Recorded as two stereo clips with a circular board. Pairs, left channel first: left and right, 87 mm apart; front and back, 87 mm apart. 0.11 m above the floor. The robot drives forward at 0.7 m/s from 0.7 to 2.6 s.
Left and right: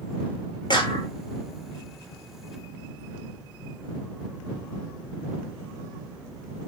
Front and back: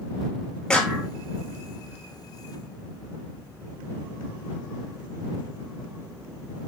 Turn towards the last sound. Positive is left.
turn(degrees=115)